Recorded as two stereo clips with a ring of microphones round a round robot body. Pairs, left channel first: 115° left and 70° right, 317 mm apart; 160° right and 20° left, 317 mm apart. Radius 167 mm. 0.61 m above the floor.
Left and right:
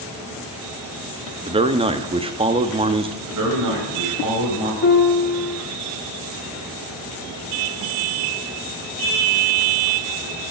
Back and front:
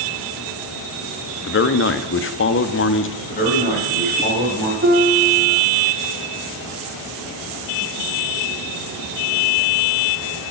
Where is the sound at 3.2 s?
95° right, 4 m.